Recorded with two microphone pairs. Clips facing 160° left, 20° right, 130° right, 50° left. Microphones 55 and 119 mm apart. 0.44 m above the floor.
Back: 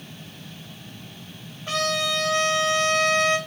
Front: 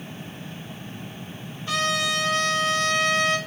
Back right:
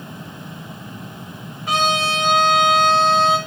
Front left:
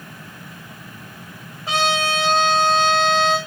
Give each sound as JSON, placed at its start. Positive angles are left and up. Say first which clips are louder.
{"t": 1.7, "sound": "a trumpet", "louder": "even, back right 1 dB", "azimuth_deg": 110, "distance_m": 2.5}